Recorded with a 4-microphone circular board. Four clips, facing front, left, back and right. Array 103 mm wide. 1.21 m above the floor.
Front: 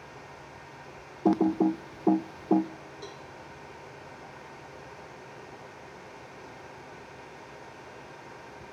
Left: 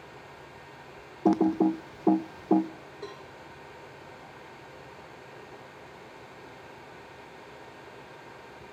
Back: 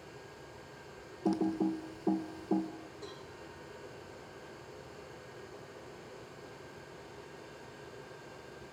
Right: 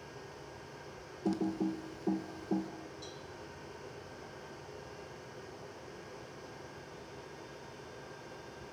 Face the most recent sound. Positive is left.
turn(degrees=80)